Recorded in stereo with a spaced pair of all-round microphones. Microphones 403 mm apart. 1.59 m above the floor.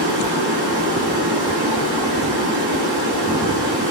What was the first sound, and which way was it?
Running water, 75° right (ahead or behind).